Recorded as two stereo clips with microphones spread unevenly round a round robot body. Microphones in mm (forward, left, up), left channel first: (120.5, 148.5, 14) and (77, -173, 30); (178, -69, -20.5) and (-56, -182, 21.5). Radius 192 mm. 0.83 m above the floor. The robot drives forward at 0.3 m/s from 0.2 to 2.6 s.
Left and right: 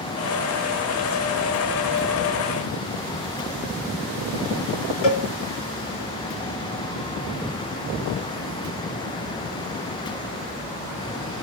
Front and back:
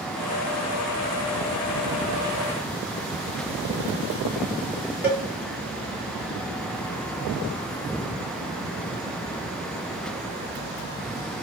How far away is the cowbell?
About 2.5 m.